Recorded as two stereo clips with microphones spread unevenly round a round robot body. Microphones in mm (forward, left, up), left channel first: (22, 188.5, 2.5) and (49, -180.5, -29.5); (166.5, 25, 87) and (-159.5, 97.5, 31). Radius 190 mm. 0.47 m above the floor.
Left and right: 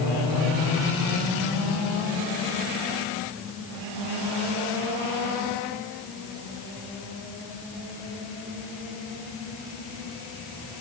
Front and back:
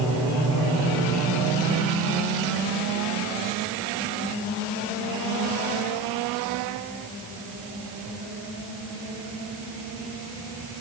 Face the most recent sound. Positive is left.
No sound to turn to.